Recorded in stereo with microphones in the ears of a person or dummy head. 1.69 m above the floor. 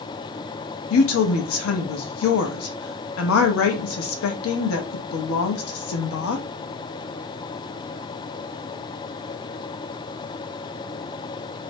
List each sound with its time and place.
0.9 s a woman speaking: 85° left, 0.6 m